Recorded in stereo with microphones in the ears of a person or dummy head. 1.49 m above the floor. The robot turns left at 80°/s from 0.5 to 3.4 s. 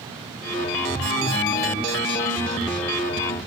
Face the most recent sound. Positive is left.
No sound to turn to.